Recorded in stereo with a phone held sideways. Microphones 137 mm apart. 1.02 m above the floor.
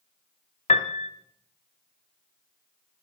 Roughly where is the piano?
Left.